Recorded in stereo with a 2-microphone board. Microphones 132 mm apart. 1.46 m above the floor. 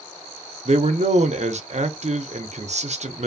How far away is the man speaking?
About 0.6 m.